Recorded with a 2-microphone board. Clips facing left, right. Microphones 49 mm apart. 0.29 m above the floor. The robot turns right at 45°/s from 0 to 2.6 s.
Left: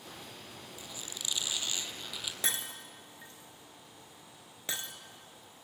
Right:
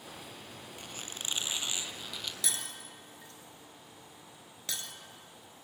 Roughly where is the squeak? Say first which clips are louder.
Right 2 dB; ahead right.